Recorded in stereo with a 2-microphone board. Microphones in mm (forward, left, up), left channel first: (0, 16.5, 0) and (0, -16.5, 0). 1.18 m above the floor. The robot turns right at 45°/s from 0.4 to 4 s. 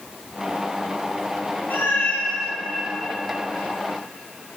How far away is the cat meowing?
About 1.0 m.